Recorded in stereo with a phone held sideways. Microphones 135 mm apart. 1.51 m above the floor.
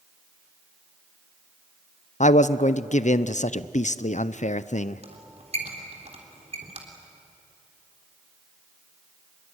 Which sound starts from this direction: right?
A squeak, at 5.0 s.